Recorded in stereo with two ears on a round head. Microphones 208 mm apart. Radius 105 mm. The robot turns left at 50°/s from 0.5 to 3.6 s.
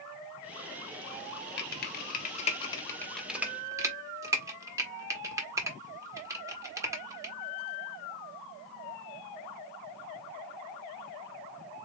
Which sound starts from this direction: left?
Typing on a keyboard, at 1.6 s.